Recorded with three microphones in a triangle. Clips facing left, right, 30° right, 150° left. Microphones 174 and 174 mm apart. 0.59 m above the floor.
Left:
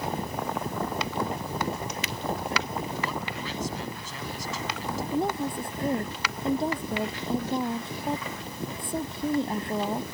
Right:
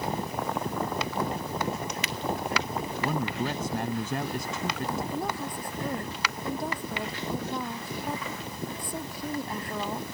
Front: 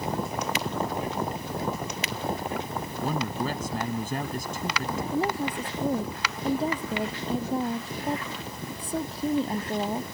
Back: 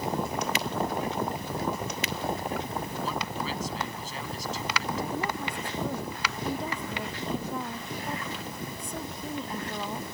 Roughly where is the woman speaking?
Ahead left.